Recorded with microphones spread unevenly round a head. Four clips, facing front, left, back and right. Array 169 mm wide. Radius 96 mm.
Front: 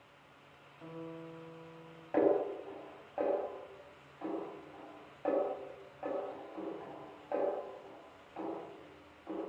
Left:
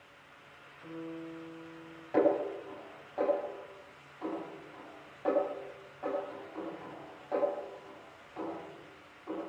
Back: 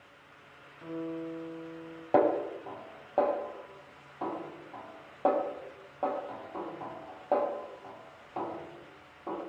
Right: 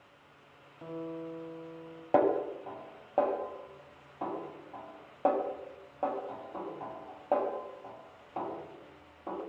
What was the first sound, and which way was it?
A guitar, 95° right.